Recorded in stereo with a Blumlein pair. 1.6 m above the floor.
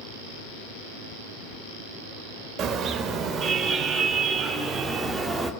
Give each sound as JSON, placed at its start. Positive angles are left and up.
{"t": 2.6, "sound": "a car horn", "azimuth_deg": -30, "distance_m": 3.5}